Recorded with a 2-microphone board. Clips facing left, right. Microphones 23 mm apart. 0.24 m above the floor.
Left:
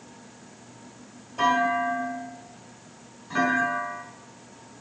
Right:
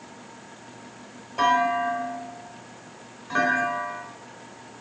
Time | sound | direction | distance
1.4 | a clunk | 35° right (ahead or behind) | 1.3 m